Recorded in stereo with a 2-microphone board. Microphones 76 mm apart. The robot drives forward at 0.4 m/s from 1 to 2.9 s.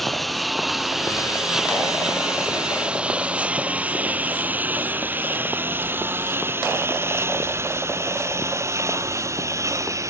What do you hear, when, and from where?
0.0 s a lawn mower: centre (ahead or behind); by 10.1 s 40° right (ahead or behind)